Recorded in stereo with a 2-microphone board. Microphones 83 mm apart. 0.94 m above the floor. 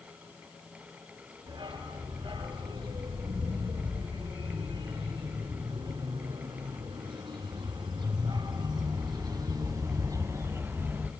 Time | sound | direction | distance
1.5 | a dog barking | 80° right | 7 m